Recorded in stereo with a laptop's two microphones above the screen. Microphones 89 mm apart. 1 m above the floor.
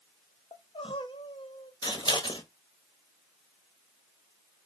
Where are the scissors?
60° left (ahead or behind), 1.6 m.